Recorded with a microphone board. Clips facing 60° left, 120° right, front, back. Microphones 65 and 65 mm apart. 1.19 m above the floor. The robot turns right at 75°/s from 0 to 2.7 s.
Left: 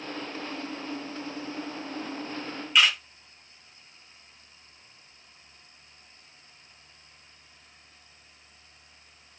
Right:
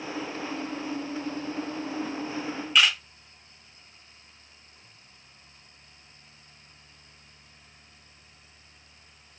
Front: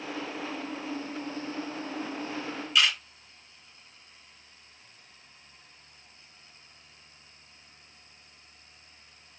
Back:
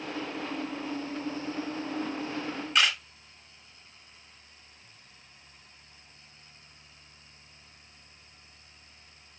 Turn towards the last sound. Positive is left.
turn(degrees=145)